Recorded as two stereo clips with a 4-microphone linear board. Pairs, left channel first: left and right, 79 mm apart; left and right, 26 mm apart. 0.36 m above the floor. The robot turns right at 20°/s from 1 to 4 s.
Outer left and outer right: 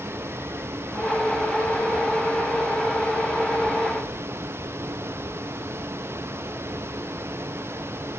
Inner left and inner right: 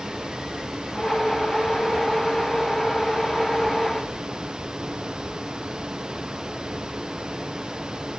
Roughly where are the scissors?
No scissors in this recording.